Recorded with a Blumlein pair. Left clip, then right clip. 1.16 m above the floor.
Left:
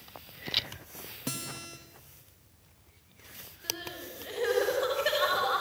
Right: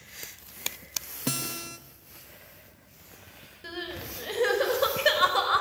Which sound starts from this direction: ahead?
A guitar, at 1.3 s.